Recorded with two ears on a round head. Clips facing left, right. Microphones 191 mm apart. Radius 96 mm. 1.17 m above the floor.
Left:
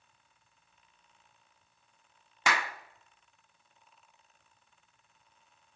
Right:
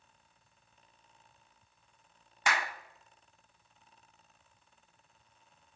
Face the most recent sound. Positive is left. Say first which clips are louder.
# left 2 dB
turn(degrees=60)  # may be behind; listen again after turning